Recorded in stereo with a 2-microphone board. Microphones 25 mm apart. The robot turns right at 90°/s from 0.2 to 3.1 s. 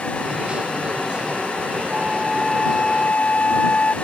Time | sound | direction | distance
1.9 | a flute | 50° right | ?